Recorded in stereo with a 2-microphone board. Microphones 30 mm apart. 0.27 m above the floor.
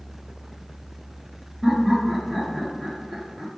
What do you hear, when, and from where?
1.6 s laughter: 10° right (ahead or behind), 0.9 m